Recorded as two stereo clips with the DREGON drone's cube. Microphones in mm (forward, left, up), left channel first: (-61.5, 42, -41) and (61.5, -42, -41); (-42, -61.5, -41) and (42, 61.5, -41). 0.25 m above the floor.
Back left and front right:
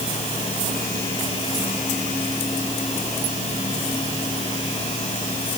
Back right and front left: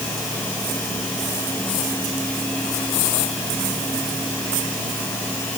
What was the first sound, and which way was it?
Only background noise.